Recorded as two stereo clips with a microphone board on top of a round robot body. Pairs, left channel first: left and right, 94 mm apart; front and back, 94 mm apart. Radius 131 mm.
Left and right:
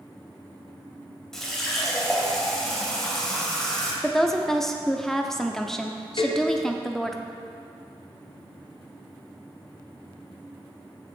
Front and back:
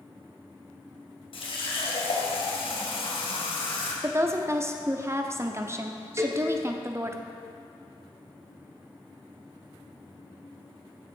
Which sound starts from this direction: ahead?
A running tap, at 1.3 s.